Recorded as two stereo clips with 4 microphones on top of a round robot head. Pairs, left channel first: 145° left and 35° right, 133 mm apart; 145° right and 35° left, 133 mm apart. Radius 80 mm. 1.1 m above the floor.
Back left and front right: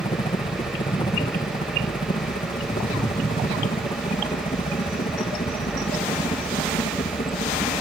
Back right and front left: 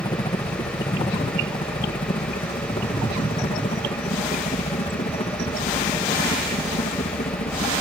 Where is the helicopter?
175° left; by 7.8 s 170° right.